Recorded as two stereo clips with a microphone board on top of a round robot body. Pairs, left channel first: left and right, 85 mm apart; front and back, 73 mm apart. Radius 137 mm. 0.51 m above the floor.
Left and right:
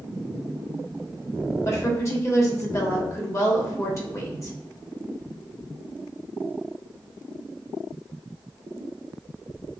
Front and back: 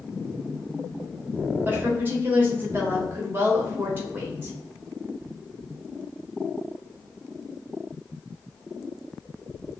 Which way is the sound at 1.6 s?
130° left.